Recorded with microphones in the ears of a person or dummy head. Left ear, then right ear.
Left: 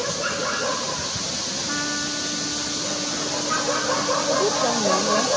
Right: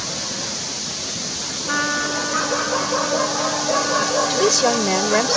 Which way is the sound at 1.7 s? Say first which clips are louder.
Right 9 dB; 30° right (ahead or behind).